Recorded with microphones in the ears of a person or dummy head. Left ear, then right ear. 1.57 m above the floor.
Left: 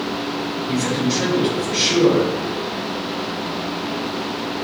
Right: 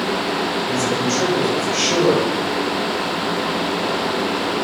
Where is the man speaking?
30° right (ahead or behind), 8.5 m.